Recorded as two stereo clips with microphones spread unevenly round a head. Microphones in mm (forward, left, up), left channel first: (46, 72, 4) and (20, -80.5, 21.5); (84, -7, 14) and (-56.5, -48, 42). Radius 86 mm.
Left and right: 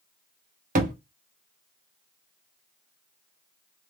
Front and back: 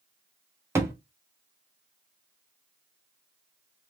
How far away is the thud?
About 1.0 m.